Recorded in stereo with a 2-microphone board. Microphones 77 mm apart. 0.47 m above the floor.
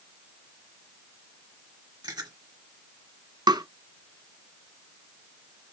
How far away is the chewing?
About 2.0 m.